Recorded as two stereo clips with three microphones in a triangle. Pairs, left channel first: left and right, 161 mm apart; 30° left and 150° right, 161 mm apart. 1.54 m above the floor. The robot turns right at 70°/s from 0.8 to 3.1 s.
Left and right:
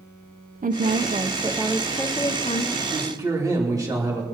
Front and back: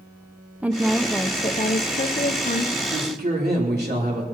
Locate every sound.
0.6 s a woman speaking: 65° right, 0.6 m; by 2.7 s 65° left, 0.6 m
2.8 s a man speaking: straight behind, 3 m; by 4.2 s 160° right, 3 m